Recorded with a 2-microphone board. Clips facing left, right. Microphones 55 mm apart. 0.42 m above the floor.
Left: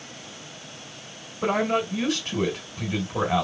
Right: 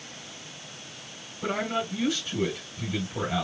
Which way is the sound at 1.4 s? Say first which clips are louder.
Left 5 dB; 65° left (ahead or behind).